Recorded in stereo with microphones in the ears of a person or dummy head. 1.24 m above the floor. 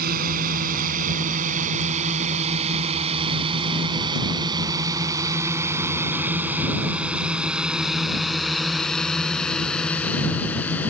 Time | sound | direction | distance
0.0 | a drone | 55° right (ahead or behind) | ?